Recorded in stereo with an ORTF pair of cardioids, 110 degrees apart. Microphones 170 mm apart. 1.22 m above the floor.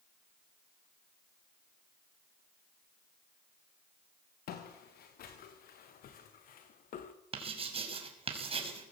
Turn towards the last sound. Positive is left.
turn(degrees=-35)